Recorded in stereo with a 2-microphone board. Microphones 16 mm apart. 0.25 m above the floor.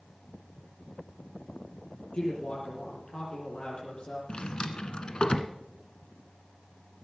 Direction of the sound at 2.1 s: 80° left.